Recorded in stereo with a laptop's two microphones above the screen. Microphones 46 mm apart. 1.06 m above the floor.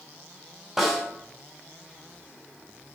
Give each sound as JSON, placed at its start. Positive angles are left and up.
{"t": 0.8, "sound": "a snare drum", "side_deg": -5, "distance_m": 5.5}